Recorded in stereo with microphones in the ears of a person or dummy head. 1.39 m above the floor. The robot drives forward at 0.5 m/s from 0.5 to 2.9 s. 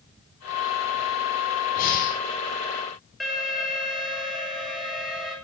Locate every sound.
1.8 s breathing: 50° left (ahead or behind), 8 m
3.2 s an alarm: centre (ahead or behind), 7 m